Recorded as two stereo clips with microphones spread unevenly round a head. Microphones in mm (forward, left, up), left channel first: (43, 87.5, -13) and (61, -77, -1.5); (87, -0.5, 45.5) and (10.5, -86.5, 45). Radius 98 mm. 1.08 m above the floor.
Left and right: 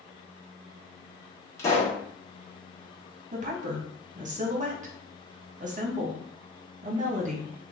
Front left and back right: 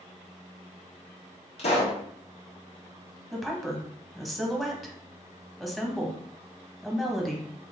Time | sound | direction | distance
1.6 | a pop | 25° left | 1.7 m
3.3 | a woman speaking | 40° right | 1.3 m